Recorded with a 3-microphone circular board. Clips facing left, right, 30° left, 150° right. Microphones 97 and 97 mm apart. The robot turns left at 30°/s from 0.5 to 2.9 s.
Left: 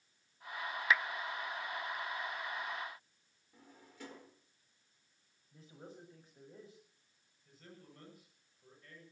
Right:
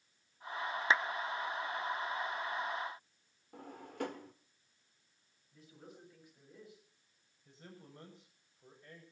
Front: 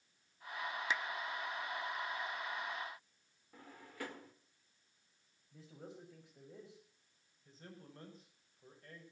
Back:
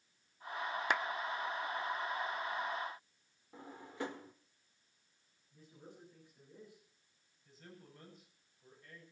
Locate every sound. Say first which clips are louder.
0.9 s a clap: right 1 dB, back 5 dB; 150° right, 0.5 m
3.5 s a drawer: right 13 dB, back 5 dB; 85° right, 1.5 m
5.5 s a man speaking: left 2 dB, front 4 dB; 30° left, 6.5 m
7.5 s a man speaking: right 2 dB, front 1 dB; 25° right, 9 m